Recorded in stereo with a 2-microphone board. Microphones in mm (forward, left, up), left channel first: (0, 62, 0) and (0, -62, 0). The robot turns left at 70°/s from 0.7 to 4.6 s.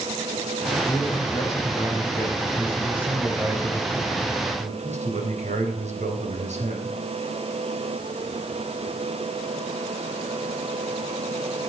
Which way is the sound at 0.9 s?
165° left.